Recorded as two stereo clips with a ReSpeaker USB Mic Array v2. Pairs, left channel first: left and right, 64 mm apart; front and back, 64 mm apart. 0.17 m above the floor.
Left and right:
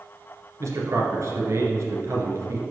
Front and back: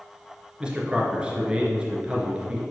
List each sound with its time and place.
0.6 s a man speaking: 110° right, 2 m